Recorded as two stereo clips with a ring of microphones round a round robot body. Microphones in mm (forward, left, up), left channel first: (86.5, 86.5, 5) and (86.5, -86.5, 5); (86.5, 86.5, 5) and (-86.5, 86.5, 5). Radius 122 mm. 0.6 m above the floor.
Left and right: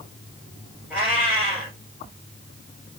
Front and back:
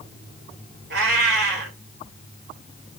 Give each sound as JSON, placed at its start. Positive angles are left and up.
{"t": 0.9, "sound": "a cat meowing", "azimuth_deg": -175, "distance_m": 2.0}